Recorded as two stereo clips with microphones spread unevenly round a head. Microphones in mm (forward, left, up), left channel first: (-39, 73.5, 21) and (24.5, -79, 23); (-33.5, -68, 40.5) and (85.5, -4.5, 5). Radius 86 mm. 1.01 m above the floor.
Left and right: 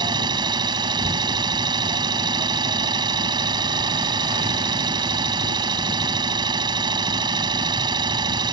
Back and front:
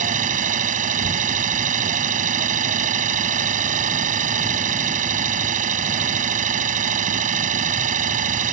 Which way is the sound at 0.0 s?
Straight ahead.